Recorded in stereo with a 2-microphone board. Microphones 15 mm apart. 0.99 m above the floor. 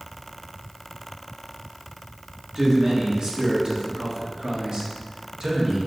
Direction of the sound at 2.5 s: 55° right (ahead or behind).